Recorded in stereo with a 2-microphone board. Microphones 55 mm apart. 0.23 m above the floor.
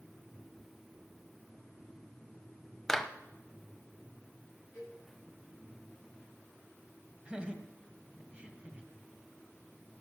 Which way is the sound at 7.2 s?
20° right (ahead or behind).